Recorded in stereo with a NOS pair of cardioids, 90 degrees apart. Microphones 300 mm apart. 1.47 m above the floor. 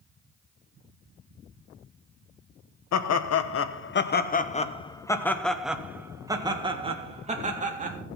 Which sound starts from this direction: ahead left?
Laughter, at 2.9 s.